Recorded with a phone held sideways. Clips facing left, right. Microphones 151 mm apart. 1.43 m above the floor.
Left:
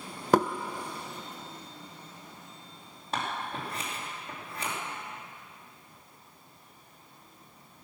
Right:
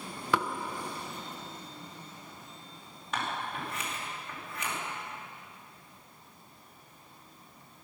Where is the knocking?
50° left (ahead or behind), 0.5 m.